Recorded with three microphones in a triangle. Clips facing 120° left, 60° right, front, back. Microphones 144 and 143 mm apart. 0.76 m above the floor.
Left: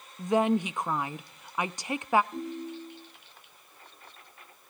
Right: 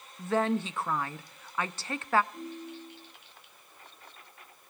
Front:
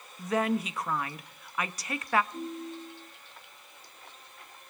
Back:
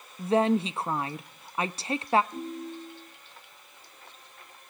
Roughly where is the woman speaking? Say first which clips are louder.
Left 3 dB, back 5 dB; behind.